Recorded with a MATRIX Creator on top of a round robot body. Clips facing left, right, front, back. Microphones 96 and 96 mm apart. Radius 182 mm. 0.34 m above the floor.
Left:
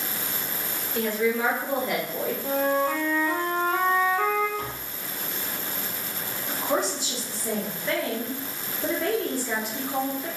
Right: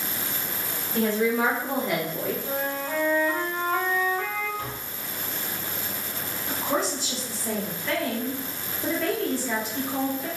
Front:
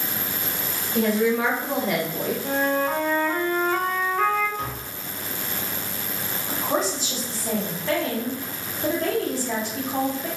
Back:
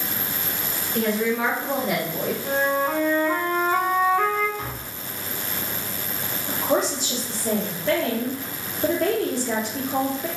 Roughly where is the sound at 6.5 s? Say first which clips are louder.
Left 1 dB, back 2 dB; behind.